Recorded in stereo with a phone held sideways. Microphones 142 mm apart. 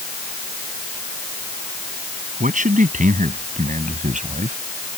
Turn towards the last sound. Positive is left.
turn(degrees=-60)  # may be behind; listen again after turning